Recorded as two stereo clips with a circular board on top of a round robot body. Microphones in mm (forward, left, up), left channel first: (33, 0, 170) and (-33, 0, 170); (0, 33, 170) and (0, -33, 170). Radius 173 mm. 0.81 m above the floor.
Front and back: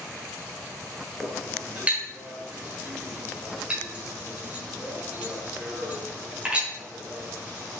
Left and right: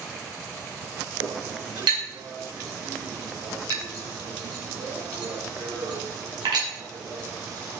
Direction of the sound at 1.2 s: 110° right.